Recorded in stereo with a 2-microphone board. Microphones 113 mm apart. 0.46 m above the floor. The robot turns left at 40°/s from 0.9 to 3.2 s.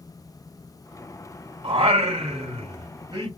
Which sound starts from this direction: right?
Singing, at 1.6 s.